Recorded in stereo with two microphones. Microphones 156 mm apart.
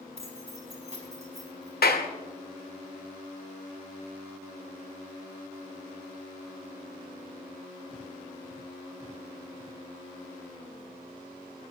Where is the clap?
80° left, 1.5 m.